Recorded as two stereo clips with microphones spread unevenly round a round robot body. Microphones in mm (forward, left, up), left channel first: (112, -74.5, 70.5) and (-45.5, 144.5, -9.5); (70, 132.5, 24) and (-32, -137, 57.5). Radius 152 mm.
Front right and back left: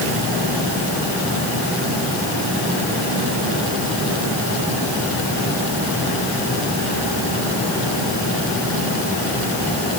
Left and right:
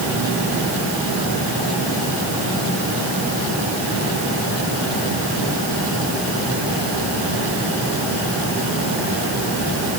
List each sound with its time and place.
Only background noise.